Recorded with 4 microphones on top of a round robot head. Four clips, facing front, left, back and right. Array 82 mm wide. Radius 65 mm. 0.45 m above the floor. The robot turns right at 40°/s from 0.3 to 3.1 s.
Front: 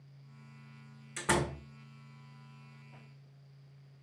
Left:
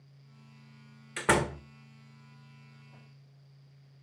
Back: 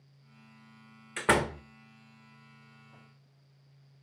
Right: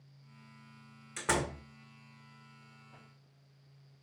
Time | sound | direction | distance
1.2 | a door slam | 140° left | 1.2 m